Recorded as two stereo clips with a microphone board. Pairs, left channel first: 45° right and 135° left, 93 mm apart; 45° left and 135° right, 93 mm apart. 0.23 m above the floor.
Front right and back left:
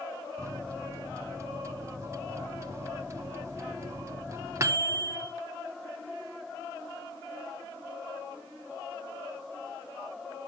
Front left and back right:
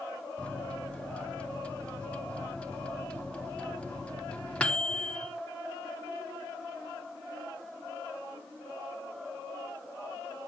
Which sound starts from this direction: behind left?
A microwave, at 0.4 s.